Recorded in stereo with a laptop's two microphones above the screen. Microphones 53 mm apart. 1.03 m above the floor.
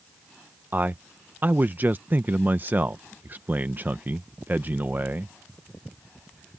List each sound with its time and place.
0.7 s a man speaking: 40° right (ahead or behind)